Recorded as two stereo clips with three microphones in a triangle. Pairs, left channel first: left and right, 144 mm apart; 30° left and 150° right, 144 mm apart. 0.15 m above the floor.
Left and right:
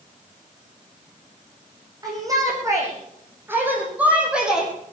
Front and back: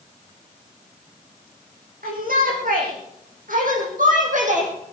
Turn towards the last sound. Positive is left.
turn(degrees=-175)